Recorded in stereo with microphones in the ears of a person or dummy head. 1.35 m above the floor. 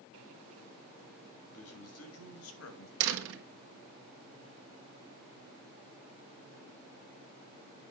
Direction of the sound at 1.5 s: 80° left.